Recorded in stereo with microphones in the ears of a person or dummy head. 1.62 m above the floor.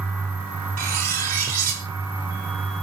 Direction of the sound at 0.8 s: 50° right (ahead or behind).